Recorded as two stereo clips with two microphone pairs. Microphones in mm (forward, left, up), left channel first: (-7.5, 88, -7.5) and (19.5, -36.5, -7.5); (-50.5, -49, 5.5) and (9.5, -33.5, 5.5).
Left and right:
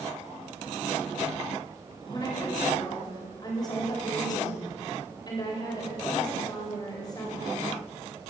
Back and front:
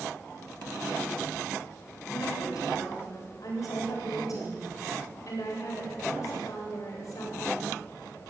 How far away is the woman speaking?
About 8 m.